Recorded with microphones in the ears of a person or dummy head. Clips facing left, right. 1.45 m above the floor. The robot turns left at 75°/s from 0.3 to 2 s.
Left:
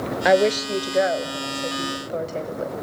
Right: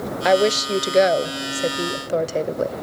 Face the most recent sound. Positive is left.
turn(degrees=-120)